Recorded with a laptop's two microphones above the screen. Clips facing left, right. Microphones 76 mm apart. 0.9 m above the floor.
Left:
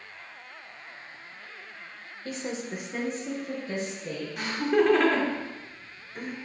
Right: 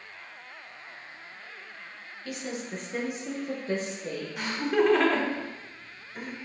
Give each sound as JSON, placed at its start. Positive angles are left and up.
{"t": 2.2, "sound": "a woman speaking", "side_deg": 35, "distance_m": 0.6}
{"t": 4.4, "sound": "laughter", "side_deg": 0, "distance_m": 0.9}